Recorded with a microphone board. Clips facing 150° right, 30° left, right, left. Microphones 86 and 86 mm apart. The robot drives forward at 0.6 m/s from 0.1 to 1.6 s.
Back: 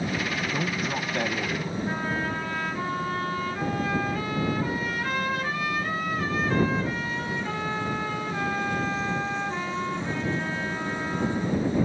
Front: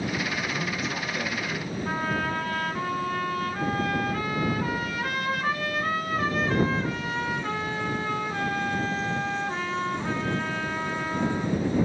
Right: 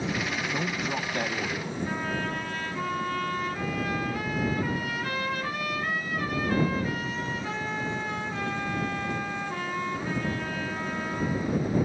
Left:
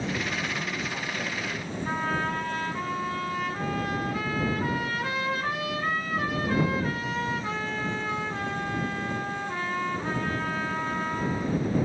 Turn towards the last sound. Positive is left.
turn(degrees=60)